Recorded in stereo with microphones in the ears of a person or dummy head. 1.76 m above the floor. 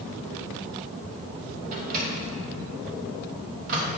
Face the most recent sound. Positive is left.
turn(degrees=-45)  # may be behind; listen again after turning